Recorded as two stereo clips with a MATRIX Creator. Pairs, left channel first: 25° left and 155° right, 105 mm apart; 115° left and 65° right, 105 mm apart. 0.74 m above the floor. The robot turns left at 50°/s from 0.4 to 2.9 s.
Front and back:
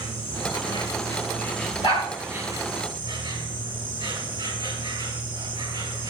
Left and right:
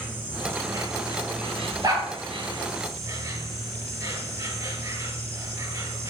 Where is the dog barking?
10° right, 4.5 m; by 2.1 s 25° right, 4.5 m.